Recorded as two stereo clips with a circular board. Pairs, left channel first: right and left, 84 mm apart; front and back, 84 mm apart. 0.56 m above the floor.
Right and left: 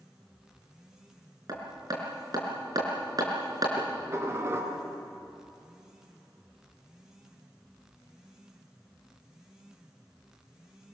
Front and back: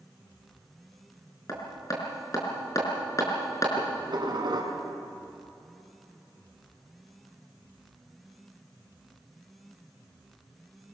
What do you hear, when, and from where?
1.5 s hammering: 50° left, 4.5 m
3.8 s dishes clattering: 150° left, 3.5 m